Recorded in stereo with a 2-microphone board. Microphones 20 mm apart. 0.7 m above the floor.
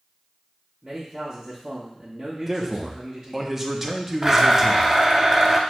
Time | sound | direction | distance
0.8 | a man speaking | 35° right (ahead or behind) | 1.0 m
2.5 | a man speaking | 10° right (ahead or behind) | 0.6 m
4.2 | a blender | 15° right (ahead or behind) | 0.5 m